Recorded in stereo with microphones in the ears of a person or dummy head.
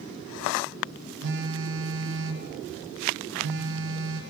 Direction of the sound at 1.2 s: 70° right (ahead or behind).